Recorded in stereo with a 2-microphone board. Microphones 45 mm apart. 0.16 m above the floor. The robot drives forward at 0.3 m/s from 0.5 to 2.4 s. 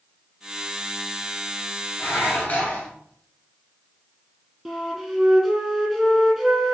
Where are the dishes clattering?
30° left (ahead or behind), 1.6 m.